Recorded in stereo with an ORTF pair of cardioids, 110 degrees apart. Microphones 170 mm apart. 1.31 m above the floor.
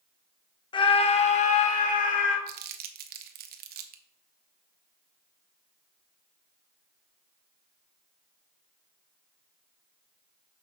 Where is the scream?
30° left, 1.1 m; by 2.4 s 55° left, 2.5 m.